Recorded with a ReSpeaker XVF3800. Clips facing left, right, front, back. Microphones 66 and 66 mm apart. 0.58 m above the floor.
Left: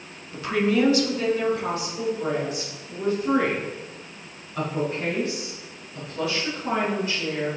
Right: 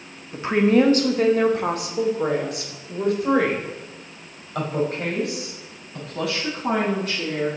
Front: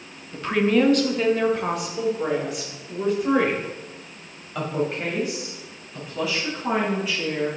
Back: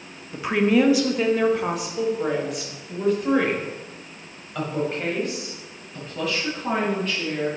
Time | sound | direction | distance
0.3 | a woman speaking | 120° right | 0.7 m